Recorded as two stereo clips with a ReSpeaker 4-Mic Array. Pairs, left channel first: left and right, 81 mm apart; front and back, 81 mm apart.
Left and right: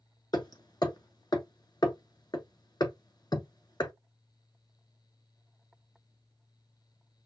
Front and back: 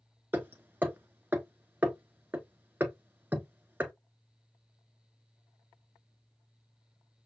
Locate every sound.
0.3 s hammering: 115° left, 0.8 m